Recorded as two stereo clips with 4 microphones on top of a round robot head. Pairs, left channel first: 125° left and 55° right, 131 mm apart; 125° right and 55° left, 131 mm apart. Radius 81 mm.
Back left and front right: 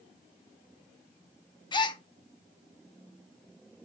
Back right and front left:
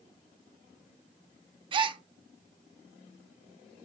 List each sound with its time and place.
1.7 s a gasp: 85° left, 0.6 m